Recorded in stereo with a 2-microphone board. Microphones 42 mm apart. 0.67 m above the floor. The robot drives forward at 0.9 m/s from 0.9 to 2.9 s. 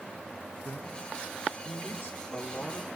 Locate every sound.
0.7 s a man speaking: 55° left (ahead or behind), 1.8 m; by 2.9 s 35° left (ahead or behind), 2.5 m